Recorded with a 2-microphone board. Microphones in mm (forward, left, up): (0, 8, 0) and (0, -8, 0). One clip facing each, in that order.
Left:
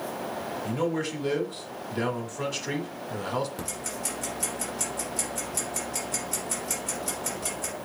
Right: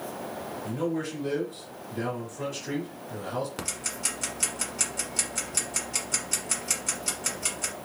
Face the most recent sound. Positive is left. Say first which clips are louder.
# right 1 dB
turn(degrees=-45)  # may be behind; listen again after turning